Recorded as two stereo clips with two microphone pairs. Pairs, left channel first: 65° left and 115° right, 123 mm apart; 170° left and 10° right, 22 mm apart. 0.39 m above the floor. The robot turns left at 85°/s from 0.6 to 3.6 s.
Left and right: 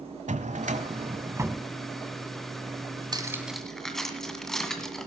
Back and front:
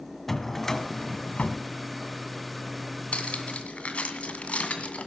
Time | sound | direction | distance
0.3 | a drawer | 110° right | 1.0 m
3.1 | cutlery clinking | 165° right | 1.9 m